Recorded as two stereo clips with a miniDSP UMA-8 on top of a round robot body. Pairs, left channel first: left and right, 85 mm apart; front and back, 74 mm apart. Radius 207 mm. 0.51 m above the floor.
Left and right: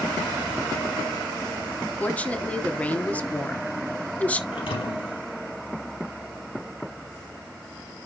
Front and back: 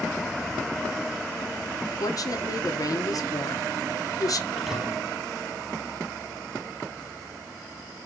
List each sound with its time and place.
2.0 s a woman speaking: 20° left, 1.9 m
4.5 s a thud: 90° left, 4.5 m